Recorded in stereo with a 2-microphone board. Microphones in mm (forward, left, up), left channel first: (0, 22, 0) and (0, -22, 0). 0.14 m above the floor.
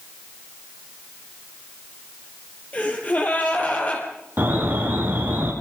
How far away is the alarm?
About 5.5 m.